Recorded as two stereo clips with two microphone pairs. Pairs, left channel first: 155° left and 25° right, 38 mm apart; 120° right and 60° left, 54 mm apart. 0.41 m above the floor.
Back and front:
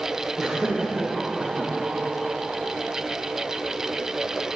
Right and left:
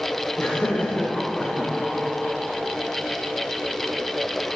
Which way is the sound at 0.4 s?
105° right.